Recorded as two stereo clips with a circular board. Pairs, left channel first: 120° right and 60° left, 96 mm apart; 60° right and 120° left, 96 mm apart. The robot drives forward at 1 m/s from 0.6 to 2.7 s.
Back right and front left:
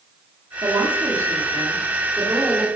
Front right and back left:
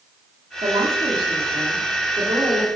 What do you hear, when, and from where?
0.6 s a woman speaking: 105° left, 2.5 m; by 2.7 s 135° left, 3.5 m